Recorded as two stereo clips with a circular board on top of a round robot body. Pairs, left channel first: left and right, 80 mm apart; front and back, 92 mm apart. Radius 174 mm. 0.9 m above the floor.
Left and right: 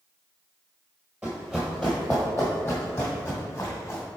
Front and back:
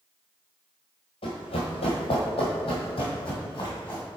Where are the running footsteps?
10° right, 1.1 m; by 4.0 s 35° left, 3 m.